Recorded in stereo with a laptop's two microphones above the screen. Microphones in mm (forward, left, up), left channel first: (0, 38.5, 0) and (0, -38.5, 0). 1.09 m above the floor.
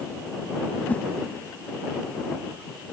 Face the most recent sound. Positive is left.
turn(degrees=20)  # may be behind; listen again after turning